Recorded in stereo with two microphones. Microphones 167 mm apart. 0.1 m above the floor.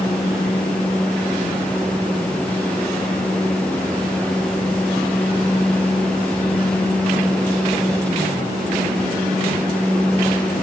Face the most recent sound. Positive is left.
No sound to turn to.